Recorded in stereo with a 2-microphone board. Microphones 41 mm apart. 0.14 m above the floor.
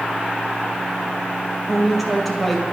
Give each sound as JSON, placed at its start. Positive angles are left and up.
{"t": 1.7, "sound": "a woman speaking", "side_deg": 0, "distance_m": 3.0}